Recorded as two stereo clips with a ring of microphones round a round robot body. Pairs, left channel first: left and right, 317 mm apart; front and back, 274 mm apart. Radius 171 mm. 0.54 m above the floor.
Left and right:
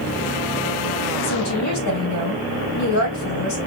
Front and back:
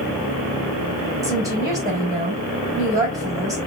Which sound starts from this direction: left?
A woman speaking, at 1.2 s.